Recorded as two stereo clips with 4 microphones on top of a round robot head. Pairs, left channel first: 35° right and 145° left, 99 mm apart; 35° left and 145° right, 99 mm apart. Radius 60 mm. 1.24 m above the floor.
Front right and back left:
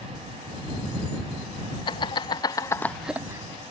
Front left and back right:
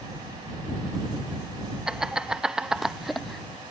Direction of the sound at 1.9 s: 65° right.